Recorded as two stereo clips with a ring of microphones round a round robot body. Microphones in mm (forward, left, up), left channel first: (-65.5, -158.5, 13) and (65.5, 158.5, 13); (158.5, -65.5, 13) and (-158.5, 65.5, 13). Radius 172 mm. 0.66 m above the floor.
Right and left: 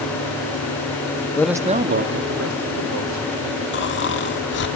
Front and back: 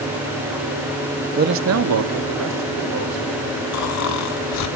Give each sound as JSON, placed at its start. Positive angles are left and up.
{"t": 1.4, "sound": "a man speaking", "azimuth_deg": -175, "distance_m": 0.7}
{"t": 3.7, "sound": "snoring", "azimuth_deg": -60, "distance_m": 1.5}